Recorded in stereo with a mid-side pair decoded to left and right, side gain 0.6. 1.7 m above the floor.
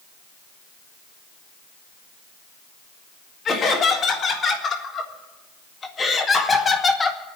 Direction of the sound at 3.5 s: 40° left.